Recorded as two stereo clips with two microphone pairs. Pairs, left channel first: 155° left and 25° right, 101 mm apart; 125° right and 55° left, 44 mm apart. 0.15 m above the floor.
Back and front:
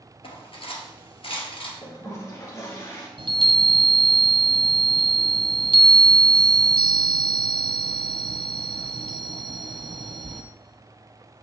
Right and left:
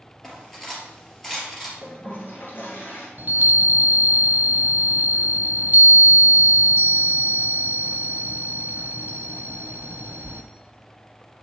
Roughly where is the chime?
Ahead.